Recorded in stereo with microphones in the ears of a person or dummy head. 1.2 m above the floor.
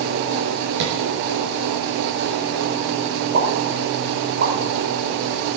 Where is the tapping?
75° right (ahead or behind), 4.5 m.